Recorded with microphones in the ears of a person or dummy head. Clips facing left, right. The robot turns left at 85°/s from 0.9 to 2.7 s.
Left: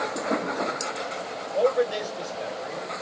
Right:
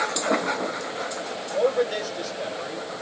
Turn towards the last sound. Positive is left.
turn(degrees=-85)